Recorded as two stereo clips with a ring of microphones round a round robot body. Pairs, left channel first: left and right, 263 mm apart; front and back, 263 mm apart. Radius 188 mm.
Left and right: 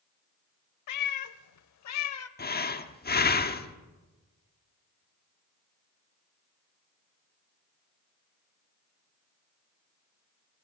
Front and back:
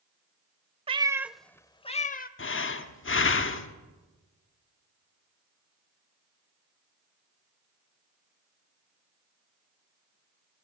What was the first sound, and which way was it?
A cat meowing, 110° left.